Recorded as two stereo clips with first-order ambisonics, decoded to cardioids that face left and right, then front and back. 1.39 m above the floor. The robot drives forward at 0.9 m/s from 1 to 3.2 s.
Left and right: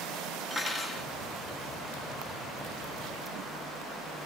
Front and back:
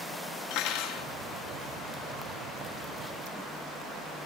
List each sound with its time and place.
0.5 s cutlery clinking: straight ahead, 1.6 m